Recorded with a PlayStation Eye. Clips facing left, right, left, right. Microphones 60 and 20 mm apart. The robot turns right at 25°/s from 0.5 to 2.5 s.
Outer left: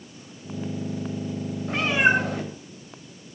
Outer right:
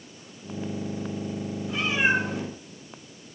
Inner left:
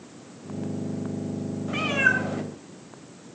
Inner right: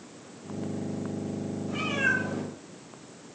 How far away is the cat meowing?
About 3.5 m.